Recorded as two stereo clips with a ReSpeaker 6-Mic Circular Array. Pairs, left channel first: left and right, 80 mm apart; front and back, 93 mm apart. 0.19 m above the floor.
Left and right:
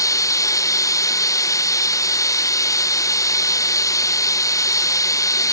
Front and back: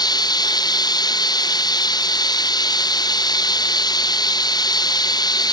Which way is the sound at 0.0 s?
45° left.